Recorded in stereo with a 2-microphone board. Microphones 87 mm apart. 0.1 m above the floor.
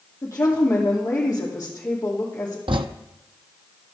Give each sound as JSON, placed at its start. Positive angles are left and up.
{"t": 0.2, "sound": "a woman speaking", "side_deg": 40, "distance_m": 3.0}
{"t": 2.7, "sound": "writing", "side_deg": -80, "distance_m": 0.6}